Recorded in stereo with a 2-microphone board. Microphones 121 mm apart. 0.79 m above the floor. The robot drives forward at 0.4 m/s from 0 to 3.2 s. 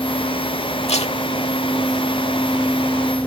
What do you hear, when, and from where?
0.9 s tape being pulled: 55° left (ahead or behind)